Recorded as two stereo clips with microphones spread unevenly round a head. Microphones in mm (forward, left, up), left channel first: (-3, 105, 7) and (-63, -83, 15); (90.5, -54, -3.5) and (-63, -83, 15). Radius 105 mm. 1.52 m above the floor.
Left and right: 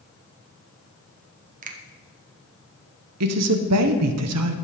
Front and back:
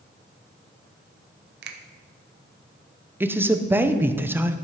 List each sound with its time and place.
1.6 s a finger snap: 160° right, 0.9 m
3.2 s a man speaking: 90° right, 0.8 m